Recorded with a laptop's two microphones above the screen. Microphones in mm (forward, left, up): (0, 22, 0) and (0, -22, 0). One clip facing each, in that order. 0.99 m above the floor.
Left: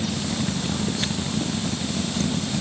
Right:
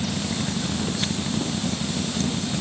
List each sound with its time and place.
Only background noise.